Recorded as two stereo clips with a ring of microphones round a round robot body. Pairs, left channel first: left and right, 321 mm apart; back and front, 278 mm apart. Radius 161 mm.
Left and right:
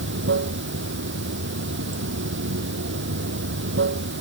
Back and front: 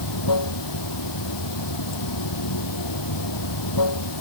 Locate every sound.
0.0 s running water: 145° right